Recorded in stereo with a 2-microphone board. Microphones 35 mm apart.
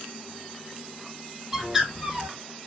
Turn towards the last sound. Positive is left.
turn(degrees=-10)  # may be behind; listen again after turning